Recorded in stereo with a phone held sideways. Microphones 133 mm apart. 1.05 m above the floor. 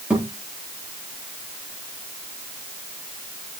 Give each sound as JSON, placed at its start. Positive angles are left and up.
{"t": 0.1, "sound": "a thud", "side_deg": -10, "distance_m": 7.5}